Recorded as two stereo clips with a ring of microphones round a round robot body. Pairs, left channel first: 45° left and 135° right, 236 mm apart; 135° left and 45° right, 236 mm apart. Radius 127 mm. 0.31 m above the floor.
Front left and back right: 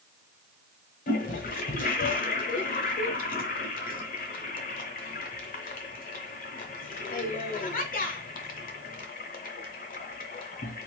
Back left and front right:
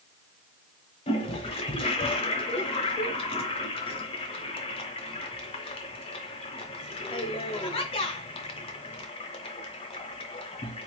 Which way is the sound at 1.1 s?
80° left.